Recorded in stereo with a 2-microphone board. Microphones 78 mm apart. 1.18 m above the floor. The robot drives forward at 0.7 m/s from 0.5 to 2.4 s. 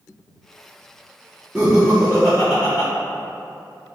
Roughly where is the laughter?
Centre.